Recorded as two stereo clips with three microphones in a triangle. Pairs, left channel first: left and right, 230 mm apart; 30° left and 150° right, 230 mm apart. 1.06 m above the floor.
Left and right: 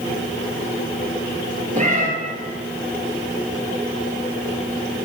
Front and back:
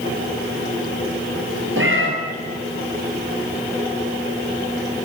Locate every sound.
1.8 s a cat meowing: 145° right, 1.9 m